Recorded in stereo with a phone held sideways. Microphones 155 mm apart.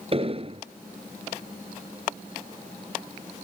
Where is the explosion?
40° right (ahead or behind).